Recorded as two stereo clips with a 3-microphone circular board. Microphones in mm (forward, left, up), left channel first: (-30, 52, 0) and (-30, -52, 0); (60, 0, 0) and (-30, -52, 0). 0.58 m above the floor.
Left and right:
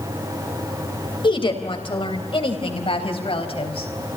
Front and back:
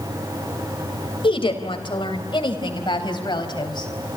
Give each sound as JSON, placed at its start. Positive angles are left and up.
{"t": 1.2, "sound": "a woman speaking", "azimuth_deg": 60, "distance_m": 3.5}